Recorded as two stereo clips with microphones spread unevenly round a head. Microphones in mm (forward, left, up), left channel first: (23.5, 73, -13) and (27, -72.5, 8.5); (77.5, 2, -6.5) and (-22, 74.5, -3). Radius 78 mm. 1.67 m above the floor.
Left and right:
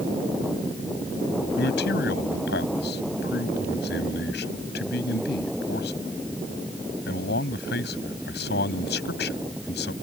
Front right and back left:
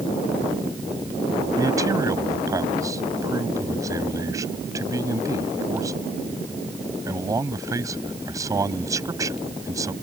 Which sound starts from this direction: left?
A man speaking, at 1.6 s.